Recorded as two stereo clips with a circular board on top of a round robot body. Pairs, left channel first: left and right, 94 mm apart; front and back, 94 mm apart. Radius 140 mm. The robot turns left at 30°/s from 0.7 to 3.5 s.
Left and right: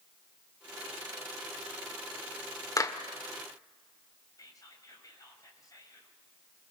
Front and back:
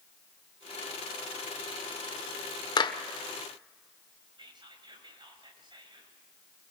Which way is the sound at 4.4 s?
145° left.